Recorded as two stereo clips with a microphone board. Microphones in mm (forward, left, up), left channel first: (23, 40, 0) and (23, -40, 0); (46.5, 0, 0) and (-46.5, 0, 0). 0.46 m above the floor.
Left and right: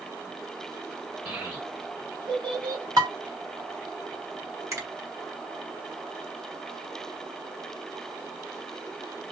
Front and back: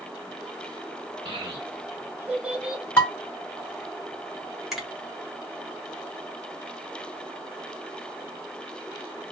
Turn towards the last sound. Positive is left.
turn(degrees=-95)